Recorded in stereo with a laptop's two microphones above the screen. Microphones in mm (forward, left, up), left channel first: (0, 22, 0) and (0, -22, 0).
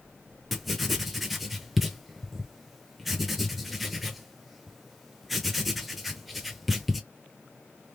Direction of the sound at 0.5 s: Centre (ahead or behind).